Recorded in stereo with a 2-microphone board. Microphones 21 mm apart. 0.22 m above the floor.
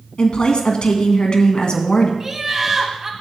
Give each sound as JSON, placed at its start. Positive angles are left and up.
{"t": 0.2, "sound": "a woman speaking", "side_deg": 50, "distance_m": 1.5}
{"t": 2.2, "sound": "laughter", "side_deg": -25, "distance_m": 1.6}